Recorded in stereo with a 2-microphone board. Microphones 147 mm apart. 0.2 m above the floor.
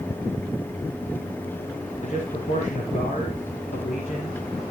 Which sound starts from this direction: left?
A man speaking, at 2.0 s.